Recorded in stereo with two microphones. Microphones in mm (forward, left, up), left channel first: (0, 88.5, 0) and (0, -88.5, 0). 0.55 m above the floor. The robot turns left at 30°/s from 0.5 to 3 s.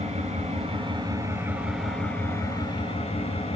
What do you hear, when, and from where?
0.0 s an engine running: 140° right, 2.5 m; by 3.6 s 145° left, 2.5 m